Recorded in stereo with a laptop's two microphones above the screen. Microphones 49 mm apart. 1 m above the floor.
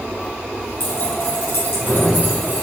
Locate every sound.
0.8 s keys jangling: 60° left (ahead or behind), 4 m; by 2.6 s 35° left (ahead or behind), 4 m